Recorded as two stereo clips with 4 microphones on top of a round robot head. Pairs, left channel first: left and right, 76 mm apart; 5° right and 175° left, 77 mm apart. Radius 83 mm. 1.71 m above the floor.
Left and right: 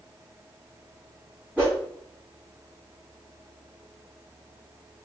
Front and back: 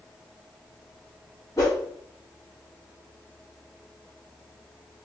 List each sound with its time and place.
1.6 s a whoosh: 20° right, 0.9 m